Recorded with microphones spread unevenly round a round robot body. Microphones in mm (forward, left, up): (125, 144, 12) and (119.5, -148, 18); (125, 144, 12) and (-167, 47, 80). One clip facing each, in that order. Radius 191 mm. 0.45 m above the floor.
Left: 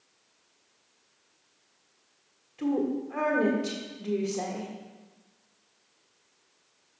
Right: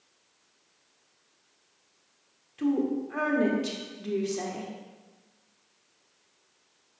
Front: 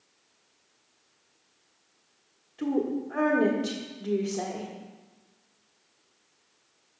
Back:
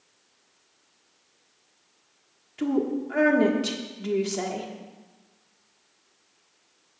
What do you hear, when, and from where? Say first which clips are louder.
2.6 s a woman speaking: right 1 dB, back 2 dB; 135° right, 1.4 m